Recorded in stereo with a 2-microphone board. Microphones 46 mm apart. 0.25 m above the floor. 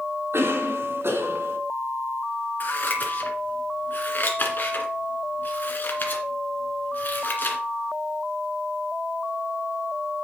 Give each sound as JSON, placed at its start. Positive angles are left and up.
{"t": 0.3, "sound": "a cough", "side_deg": -60, "distance_m": 2.0}
{"t": 2.6, "sound": "scissors", "side_deg": 40, "distance_m": 1.9}